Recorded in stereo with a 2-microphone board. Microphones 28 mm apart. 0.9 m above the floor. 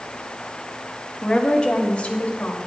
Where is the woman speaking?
25° left (ahead or behind), 1.6 m; by 2.6 s 50° left (ahead or behind), 2 m.